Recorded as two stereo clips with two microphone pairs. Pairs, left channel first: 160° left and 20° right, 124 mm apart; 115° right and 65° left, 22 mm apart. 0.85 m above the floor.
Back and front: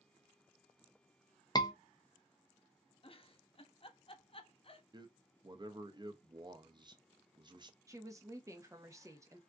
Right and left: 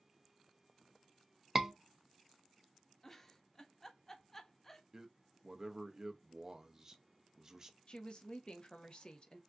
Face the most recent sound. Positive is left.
turn(degrees=-75)